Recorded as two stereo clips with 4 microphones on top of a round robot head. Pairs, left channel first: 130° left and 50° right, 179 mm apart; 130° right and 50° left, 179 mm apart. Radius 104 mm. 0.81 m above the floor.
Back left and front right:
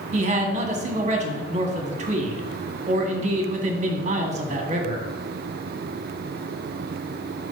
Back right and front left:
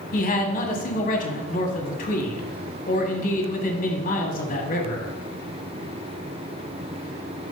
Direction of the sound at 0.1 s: 95° right.